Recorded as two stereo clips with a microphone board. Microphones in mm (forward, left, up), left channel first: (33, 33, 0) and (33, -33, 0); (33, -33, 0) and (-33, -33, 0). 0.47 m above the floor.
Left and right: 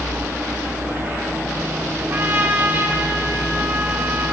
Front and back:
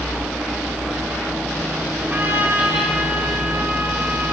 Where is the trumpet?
135° right, 2 m.